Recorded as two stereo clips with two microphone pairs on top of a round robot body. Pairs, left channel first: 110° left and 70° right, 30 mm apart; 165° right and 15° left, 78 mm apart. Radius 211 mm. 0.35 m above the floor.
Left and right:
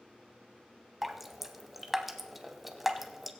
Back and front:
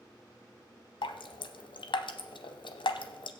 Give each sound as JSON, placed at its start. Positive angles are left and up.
{"t": 1.0, "sound": "dripping", "azimuth_deg": -155, "distance_m": 0.8}